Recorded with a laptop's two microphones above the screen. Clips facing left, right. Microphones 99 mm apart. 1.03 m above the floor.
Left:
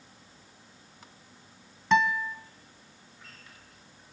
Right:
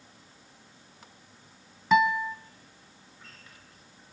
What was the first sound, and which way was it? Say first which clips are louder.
A guitar: right 2 dB; 5° right (ahead or behind).